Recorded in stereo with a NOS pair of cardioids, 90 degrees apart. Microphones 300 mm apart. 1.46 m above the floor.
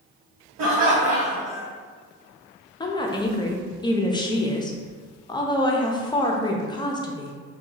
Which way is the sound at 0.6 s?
60° right.